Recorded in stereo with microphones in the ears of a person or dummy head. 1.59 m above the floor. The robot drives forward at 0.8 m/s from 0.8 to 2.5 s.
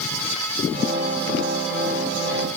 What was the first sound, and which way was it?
Only background noise.